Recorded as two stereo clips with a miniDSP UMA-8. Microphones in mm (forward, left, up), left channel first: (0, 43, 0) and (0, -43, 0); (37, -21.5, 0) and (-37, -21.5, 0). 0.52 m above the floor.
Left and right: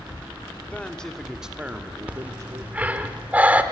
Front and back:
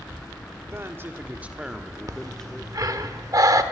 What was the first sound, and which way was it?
A man speaking, 155° left.